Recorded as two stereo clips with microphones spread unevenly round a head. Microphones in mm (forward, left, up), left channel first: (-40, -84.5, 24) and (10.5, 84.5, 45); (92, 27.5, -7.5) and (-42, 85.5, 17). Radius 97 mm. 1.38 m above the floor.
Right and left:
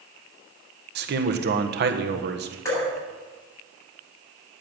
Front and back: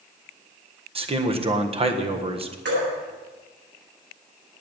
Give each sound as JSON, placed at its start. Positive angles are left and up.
{"t": 0.9, "sound": "a man speaking", "azimuth_deg": 105, "distance_m": 1.5}
{"t": 2.6, "sound": "dripping", "azimuth_deg": 180, "distance_m": 7.5}